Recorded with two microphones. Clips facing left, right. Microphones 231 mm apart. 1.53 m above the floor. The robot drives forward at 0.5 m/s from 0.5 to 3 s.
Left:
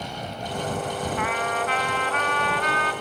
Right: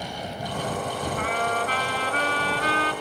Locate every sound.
1.2 s a trumpet: 40° right (ahead or behind), 2.5 m; by 2.9 s 30° right (ahead or behind), 3.5 m